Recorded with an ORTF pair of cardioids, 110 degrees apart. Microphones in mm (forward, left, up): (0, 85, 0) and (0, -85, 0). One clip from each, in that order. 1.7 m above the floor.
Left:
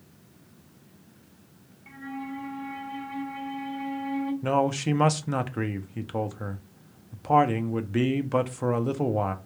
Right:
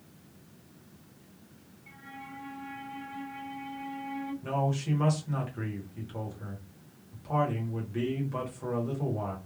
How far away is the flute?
About 0.8 m.